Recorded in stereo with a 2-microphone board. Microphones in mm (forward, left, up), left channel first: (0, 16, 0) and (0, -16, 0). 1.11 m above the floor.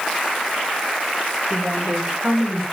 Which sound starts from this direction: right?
A woman speaking, at 1.5 s.